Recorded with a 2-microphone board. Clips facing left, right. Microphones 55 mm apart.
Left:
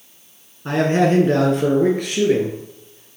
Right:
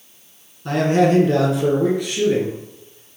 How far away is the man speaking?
About 1.2 m.